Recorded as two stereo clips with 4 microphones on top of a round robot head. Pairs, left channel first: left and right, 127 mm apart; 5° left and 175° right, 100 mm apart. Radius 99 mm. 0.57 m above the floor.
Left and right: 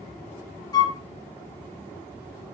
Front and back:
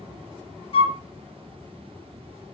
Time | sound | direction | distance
0.7 | a flute | 30° left | 0.8 m